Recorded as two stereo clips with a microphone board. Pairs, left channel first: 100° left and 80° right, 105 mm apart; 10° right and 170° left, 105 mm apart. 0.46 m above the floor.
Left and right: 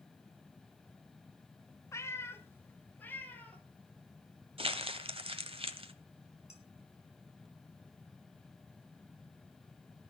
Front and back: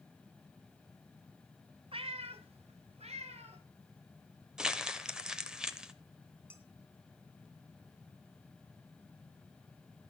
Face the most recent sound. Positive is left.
turn(degrees=100)